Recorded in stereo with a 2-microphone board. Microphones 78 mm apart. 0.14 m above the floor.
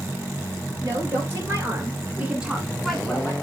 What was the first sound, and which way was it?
A woman speaking, 35° right (ahead or behind).